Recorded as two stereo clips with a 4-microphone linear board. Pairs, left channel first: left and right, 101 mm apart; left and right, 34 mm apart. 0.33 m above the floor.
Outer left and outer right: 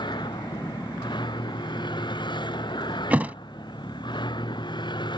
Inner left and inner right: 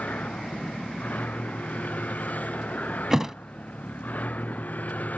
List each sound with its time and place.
0.0 s a vehicle: 50° left (ahead or behind)
3.1 s a thud: 15° right (ahead or behind)